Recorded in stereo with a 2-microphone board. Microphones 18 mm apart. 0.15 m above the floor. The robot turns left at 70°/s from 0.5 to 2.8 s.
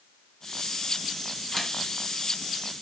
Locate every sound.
1.5 s a camera shutter: 10° left (ahead or behind), 1.4 m; by 1.7 s 20° left (ahead or behind), 1.4 m